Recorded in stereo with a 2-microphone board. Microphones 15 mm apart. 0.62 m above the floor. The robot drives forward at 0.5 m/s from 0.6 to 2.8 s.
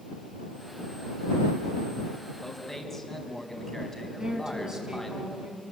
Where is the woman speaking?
45° right (ahead or behind), 4.5 m.